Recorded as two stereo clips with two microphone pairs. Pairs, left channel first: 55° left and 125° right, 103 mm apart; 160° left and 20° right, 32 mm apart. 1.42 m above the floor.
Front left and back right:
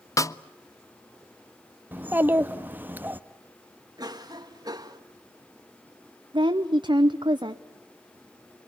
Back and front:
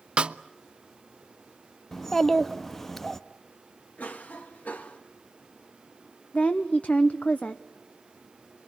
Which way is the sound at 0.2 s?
15° left.